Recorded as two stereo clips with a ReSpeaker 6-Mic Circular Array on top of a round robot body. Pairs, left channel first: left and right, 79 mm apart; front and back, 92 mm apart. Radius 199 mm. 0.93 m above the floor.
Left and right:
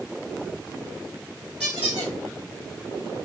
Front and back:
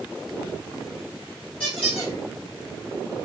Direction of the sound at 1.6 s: 25° right.